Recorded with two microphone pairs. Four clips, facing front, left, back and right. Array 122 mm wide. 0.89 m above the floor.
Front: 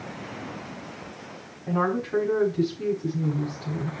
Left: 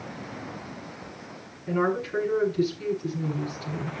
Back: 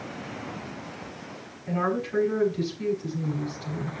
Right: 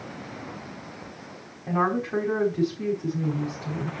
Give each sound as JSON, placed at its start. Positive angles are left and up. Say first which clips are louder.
{"t": 1.7, "sound": "a woman speaking", "louder": "right 1 dB, front 2 dB", "azimuth_deg": -65, "distance_m": 5.0}